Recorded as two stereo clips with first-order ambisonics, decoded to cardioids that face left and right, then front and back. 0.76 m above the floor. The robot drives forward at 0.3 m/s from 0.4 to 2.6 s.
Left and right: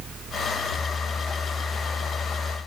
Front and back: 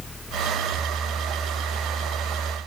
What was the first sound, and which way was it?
Only background noise.